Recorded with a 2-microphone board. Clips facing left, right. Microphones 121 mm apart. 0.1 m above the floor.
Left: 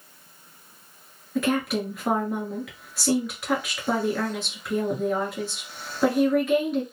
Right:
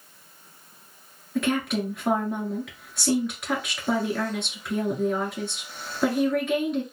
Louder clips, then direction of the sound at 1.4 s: Left 1 dB; centre (ahead or behind).